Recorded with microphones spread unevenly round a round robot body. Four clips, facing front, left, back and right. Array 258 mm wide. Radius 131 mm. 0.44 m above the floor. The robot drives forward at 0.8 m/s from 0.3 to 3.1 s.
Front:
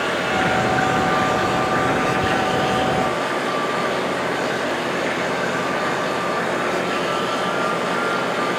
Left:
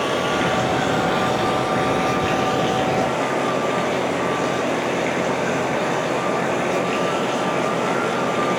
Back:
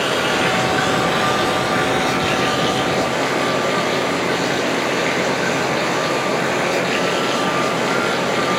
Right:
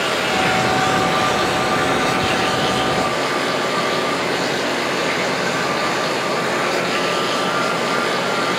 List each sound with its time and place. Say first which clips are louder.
0.0 s running water: right 1 dB, back 2 dB; 170° left, 6 m; by 8.6 s 175° left, 8.5 m